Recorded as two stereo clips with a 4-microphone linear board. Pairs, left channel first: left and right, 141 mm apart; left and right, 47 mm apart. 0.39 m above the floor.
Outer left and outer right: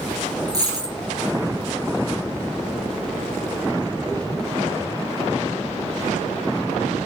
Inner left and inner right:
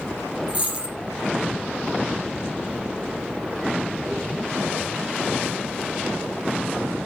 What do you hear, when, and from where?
0.5 s a dropped coin: 30° right (ahead or behind), 3.5 m